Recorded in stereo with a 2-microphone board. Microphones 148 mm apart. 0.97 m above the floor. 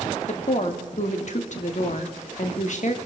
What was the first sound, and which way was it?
A woman speaking, 60° left (ahead or behind).